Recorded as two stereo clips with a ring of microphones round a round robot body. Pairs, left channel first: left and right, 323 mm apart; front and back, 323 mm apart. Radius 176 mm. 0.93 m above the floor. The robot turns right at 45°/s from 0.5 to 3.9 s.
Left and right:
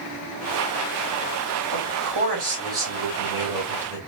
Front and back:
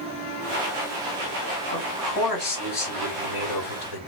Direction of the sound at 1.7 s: 90° right.